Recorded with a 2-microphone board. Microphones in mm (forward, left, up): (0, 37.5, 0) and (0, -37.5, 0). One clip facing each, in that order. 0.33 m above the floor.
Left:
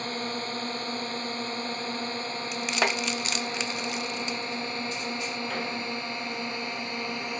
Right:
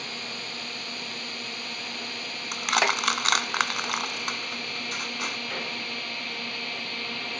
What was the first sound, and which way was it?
A drone, 40° left (ahead or behind).